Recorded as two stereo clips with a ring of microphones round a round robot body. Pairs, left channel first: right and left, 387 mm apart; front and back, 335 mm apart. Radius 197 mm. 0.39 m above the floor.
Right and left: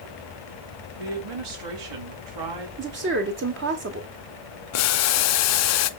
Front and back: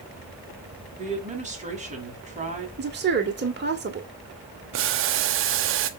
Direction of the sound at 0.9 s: 110° left.